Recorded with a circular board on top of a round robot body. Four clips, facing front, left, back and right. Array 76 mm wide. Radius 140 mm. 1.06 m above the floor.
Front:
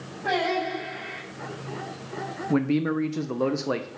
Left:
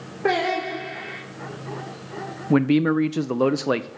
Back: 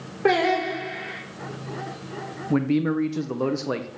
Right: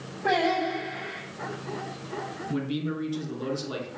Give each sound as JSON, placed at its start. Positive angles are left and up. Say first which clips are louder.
{"t": 0.2, "sound": "singing", "louder": "left 2 dB, back 5 dB", "azimuth_deg": 145, "distance_m": 3.5}
{"t": 2.5, "sound": "a man speaking", "louder": "left 13 dB, back 2 dB", "azimuth_deg": 90, "distance_m": 0.6}